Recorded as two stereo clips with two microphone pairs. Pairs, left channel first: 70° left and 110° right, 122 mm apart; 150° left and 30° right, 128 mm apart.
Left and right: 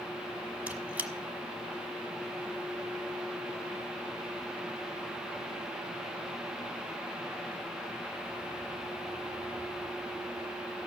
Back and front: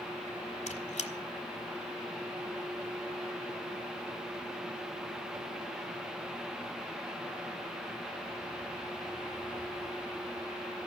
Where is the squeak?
170° left, 1.2 m.